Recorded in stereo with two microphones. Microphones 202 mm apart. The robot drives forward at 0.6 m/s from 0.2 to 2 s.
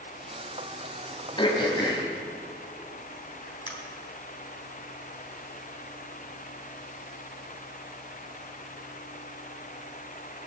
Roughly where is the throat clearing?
Left.